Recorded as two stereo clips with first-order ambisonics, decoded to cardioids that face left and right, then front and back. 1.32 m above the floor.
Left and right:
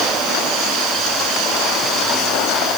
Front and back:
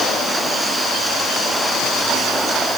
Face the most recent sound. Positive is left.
No sound to turn to.